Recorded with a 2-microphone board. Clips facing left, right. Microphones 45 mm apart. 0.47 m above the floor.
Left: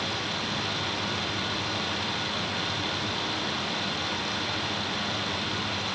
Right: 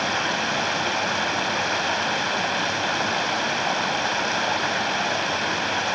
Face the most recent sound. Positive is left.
turn(degrees=-70)  # may be behind; listen again after turning